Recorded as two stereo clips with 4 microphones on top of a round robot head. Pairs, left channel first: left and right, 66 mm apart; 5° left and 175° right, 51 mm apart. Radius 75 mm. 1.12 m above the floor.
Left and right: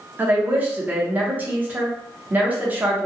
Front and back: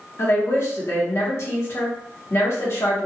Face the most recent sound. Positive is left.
turn(degrees=-25)